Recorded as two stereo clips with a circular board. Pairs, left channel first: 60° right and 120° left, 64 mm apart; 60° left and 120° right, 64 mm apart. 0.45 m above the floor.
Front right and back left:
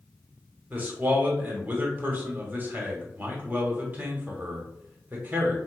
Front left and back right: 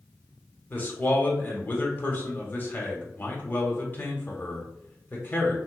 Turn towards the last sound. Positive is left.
turn(degrees=85)